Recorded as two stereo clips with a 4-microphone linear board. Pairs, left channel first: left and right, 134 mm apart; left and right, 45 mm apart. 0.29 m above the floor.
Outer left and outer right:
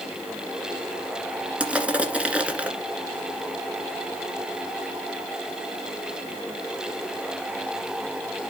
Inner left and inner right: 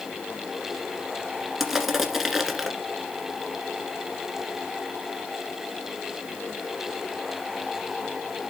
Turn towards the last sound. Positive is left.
turn(degrees=-10)  # may be behind; listen again after turning